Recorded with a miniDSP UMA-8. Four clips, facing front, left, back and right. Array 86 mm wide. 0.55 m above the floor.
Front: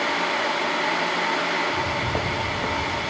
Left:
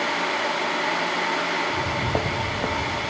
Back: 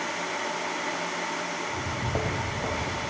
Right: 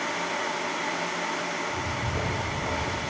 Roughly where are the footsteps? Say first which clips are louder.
Left 6 dB, front 5 dB; left.